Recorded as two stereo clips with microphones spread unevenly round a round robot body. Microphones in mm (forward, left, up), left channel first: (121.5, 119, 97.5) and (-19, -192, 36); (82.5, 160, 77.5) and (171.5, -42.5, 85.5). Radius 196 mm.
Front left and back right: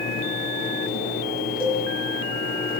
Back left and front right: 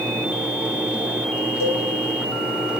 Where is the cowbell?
150° left, 4 m.